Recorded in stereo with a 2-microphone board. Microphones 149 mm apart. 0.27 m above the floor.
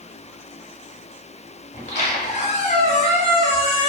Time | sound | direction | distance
1.7 | a squeak | 50° left (ahead or behind) | 0.9 m